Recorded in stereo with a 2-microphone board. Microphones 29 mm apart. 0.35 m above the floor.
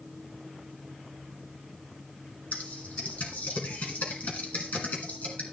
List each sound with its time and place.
2.5 s typing on a keyboard: 65° left (ahead or behind), 2.5 m